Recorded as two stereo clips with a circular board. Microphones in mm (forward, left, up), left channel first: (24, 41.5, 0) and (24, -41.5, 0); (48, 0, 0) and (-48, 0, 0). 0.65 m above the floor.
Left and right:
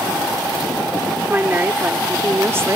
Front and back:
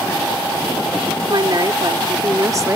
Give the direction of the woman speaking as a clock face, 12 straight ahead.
5 o'clock.